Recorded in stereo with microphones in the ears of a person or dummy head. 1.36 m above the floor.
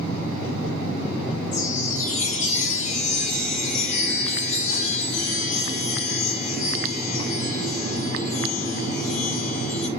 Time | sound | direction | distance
1.5 | a chime | 50° left (ahead or behind) | 2.5 m